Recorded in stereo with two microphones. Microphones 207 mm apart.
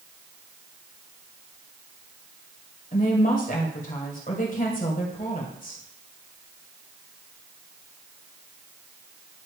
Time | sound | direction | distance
2.9 | a woman speaking | 40° left (ahead or behind) | 1.9 m